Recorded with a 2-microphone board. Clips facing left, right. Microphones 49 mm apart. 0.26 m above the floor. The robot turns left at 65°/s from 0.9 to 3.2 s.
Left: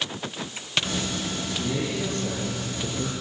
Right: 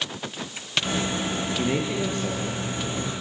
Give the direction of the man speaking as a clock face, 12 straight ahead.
4 o'clock.